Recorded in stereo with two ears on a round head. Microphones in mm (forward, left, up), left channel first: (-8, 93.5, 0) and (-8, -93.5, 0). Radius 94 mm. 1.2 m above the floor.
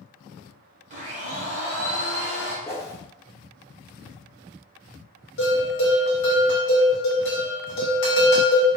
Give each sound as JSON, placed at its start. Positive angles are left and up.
{"t": 0.9, "sound": "a blender", "side_deg": -35, "distance_m": 0.9}
{"t": 2.6, "sound": "a whoosh", "side_deg": 15, "distance_m": 0.6}
{"t": 5.4, "sound": "a bell", "side_deg": 55, "distance_m": 1.2}